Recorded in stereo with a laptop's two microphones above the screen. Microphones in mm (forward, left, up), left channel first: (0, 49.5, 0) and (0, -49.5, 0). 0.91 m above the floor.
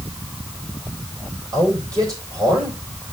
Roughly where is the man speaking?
Right.